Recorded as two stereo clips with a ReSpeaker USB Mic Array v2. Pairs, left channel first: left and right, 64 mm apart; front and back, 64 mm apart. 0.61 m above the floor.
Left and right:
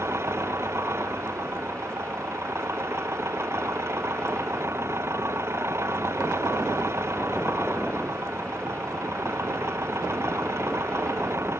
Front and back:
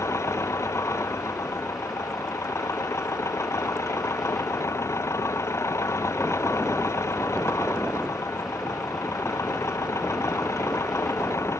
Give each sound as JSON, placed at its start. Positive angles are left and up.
{"t": 0.0, "sound": "an engine running", "azimuth_deg": -45}